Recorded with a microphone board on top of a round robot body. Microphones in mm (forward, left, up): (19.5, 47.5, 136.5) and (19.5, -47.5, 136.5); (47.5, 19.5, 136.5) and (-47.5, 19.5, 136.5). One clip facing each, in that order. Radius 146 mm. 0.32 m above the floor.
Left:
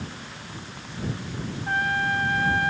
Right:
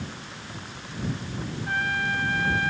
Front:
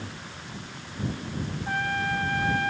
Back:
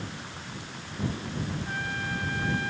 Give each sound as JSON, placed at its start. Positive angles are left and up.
{"t": 1.7, "sound": "a trumpet", "azimuth_deg": 35}